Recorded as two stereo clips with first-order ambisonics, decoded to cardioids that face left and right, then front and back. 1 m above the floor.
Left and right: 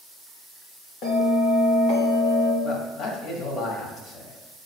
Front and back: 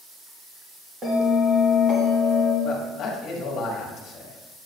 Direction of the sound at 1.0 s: 120° left.